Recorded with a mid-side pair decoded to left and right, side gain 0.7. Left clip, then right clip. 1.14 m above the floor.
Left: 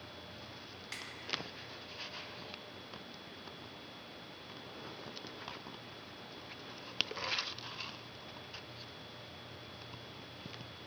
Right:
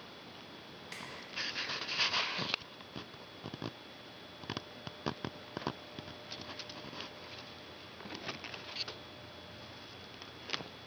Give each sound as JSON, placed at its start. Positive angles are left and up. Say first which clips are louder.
{"t": 0.9, "sound": "a snare drum", "louder": "left 1 dB", "azimuth_deg": 10, "distance_m": 1.0}